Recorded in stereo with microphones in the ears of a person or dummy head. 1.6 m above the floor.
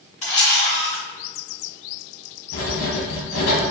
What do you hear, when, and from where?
0.2 s a camera shutter: 30° left (ahead or behind), 2.0 m
2.5 s writing: 75° left (ahead or behind), 1.1 m